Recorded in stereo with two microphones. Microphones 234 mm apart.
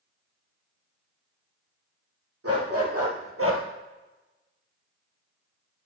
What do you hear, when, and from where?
2.4 s a dog barking: 80° right, 3 m; by 3.6 s 65° right (ahead or behind), 1.4 m